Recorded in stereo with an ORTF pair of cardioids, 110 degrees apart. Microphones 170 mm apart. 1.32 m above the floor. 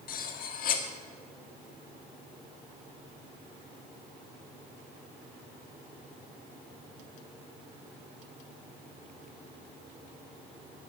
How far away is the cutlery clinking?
About 1.7 m.